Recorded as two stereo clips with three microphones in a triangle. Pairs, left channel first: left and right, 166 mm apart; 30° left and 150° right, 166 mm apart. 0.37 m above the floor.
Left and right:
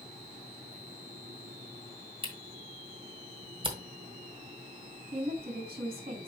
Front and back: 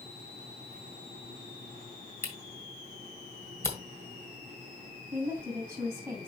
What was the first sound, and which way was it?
A camera shutter, 40° right.